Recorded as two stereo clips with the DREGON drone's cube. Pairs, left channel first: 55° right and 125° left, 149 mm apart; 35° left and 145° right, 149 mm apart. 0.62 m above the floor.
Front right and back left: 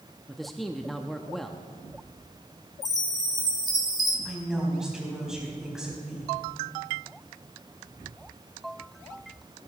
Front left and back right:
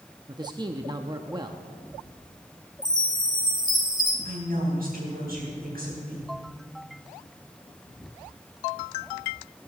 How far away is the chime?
About 1.9 m.